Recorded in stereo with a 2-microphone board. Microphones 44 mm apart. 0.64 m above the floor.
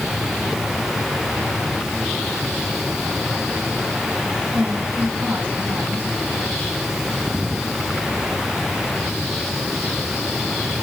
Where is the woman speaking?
45° right (ahead or behind), 5.5 m.